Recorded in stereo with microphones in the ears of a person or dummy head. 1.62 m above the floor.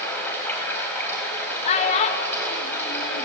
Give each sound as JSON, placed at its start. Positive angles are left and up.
{"t": 0.0, "sound": "running water", "side_deg": 15, "distance_m": 4.5}
{"t": 1.6, "sound": "a child speaking", "side_deg": 40, "distance_m": 1.1}